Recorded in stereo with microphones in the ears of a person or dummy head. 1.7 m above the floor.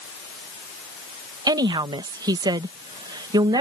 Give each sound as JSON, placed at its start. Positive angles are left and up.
{"t": 1.5, "sound": "a woman speaking", "side_deg": -25}